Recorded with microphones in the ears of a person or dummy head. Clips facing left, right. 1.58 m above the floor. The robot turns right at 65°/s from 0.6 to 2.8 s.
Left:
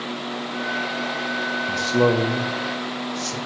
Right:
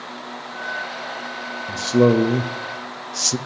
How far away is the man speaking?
About 0.7 m.